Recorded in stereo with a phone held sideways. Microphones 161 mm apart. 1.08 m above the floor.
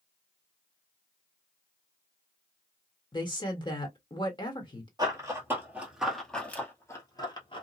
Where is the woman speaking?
30° left (ahead or behind), 1.4 m.